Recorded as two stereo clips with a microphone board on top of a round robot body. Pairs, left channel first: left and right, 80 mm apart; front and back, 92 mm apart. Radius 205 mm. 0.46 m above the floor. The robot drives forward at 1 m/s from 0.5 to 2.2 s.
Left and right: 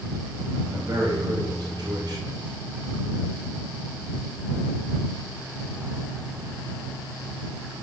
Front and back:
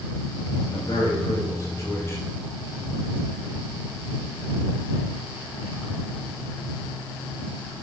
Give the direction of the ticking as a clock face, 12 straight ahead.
I don't hear ticking.